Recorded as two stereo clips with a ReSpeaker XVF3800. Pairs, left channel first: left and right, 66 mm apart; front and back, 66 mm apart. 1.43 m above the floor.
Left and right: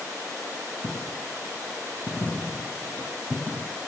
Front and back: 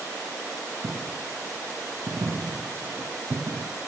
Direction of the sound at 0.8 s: 155° left.